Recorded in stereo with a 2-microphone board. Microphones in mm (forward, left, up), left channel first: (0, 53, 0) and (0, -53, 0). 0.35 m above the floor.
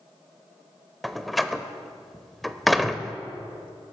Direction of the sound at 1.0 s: Centre (ahead or behind).